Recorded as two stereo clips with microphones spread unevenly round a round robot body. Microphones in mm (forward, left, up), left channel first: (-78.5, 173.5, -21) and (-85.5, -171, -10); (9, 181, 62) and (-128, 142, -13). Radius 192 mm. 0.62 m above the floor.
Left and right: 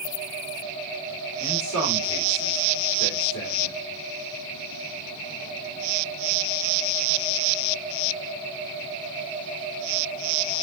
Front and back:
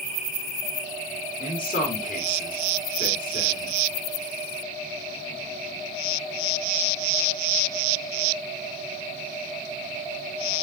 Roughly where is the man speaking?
Ahead left.